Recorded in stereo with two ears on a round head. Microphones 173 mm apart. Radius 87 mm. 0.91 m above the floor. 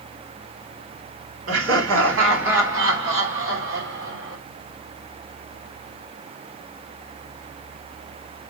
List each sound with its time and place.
1.5 s laughter: 75° right (ahead or behind), 3.5 m